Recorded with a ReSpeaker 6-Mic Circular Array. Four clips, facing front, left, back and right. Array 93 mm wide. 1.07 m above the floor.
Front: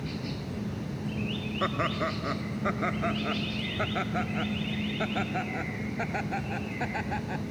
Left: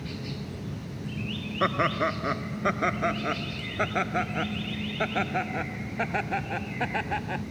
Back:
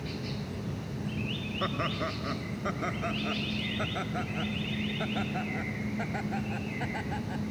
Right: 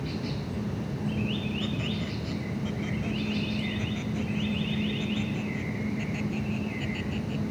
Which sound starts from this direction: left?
Laughter, at 1.6 s.